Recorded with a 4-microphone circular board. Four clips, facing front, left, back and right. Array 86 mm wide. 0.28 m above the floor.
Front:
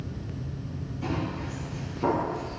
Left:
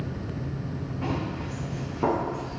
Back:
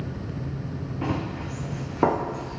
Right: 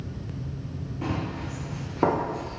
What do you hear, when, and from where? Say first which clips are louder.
1.0 s running footsteps: even, back 2 dB; 170° right, 3.5 m; by 2.6 s 140° right, 3 m